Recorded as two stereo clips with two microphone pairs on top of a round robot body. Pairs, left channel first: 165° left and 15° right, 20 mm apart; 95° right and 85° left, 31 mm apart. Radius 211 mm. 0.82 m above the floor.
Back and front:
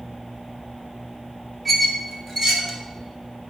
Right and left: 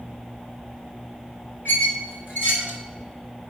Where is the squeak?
110° right, 3 m.